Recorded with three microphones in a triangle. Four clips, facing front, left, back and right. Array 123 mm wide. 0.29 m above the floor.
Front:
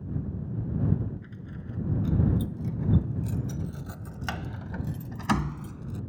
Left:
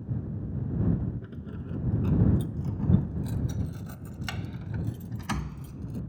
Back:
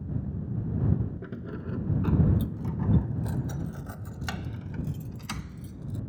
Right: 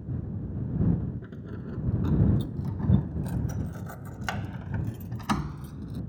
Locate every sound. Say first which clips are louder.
1.2 s keys jangling: right 1 dB, back 5 dB; 175° right; by 6.0 s 20° right